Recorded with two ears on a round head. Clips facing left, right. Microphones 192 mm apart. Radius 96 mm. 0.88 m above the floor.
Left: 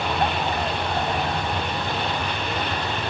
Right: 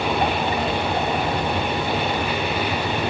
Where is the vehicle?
5° right (ahead or behind).